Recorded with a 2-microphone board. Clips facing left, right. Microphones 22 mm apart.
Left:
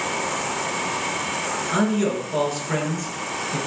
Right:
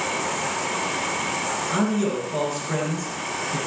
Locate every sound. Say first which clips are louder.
1.7 s a man speaking: left 2 dB; 15° left (ahead or behind), 5 m